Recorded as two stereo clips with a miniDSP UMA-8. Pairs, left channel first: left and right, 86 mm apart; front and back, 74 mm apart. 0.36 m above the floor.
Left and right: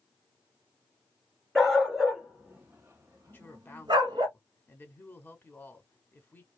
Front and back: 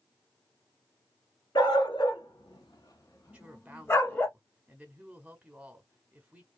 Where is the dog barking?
Straight ahead, 1.4 m; by 4.3 s 65° right, 1.1 m.